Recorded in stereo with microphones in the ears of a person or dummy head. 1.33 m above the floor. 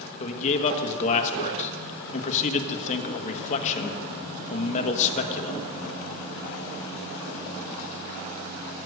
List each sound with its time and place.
0.2 s a man speaking: 40° left (ahead or behind), 1.3 m